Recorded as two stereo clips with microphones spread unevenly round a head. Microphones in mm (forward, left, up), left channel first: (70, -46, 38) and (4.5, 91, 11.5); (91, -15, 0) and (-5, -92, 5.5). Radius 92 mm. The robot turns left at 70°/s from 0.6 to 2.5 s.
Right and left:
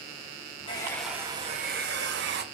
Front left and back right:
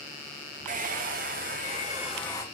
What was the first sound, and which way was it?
A hair dryer, 130° right.